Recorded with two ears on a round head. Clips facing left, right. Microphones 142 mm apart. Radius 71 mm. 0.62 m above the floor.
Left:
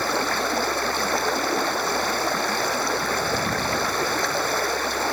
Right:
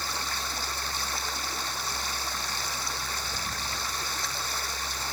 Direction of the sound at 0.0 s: 50° left (ahead or behind).